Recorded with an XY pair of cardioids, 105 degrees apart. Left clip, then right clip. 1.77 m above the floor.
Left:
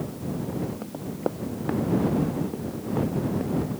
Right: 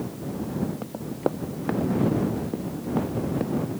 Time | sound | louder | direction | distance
0.8 | running footsteps | right 2 dB | 15° right | ?